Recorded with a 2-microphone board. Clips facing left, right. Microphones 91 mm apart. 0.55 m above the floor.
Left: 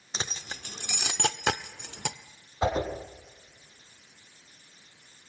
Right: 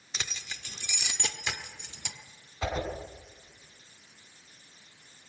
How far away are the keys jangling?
About 0.9 m.